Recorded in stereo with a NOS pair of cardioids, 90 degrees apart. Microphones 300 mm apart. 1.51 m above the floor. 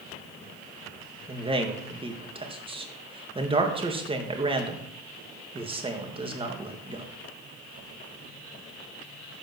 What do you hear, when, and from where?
1.3 s a man speaking: 20° right, 2.5 m